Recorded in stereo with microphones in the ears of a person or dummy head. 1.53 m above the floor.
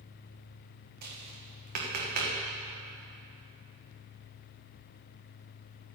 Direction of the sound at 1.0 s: 50° right (ahead or behind).